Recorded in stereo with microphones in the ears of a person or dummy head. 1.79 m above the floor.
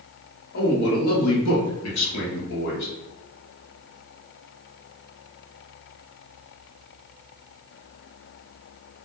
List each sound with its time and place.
0.5 s a man speaking: 50° left (ahead or behind), 1.0 m; by 2.9 s 60° left (ahead or behind), 1.1 m